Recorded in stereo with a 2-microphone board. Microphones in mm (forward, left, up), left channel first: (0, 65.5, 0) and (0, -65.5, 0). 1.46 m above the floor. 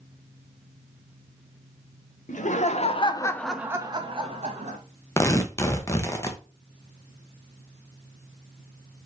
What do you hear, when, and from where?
2.3 s laughter: 70° left (ahead or behind), 0.9 m; by 4.8 s 55° right (ahead or behind), 1.1 m
5.2 s tearing paper: 20° left (ahead or behind), 0.6 m